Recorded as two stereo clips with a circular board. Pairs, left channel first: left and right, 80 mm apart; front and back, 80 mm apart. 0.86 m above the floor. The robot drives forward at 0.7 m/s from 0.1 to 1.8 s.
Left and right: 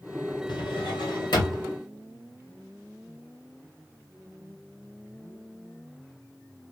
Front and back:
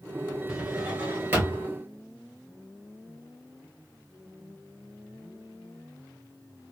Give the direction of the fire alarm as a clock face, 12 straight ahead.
I don't hear a fire alarm.